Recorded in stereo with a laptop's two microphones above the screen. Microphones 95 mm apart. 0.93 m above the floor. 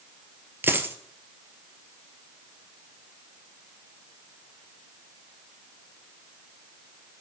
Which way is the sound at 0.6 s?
25° right (ahead or behind).